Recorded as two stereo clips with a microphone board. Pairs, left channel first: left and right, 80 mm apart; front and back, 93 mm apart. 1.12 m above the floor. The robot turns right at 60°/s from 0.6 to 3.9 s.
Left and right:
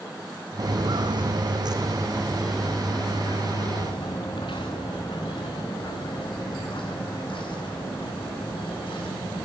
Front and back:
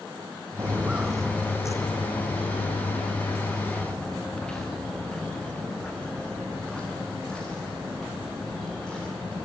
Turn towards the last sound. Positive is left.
turn(degrees=80)